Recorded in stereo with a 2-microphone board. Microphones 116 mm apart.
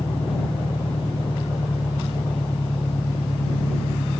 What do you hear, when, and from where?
0.0 s an engine running: 45° left (ahead or behind)